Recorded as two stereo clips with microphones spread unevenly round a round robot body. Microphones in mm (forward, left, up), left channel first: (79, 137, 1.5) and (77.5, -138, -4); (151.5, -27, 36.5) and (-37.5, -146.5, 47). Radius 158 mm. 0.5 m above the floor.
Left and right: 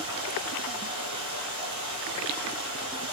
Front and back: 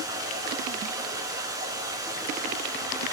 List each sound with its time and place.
0.0 s running water: 75° right, 5 m